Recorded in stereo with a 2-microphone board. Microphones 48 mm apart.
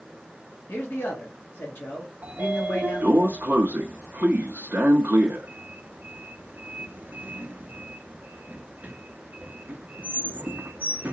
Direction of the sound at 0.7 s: 50° left (ahead or behind).